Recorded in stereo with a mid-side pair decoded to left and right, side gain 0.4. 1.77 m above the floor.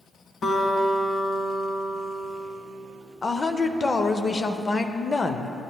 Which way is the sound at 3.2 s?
35° left.